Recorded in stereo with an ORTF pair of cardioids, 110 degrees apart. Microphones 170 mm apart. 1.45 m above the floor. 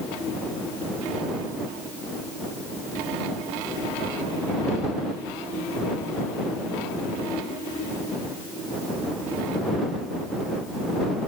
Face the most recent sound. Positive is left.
No sound to turn to.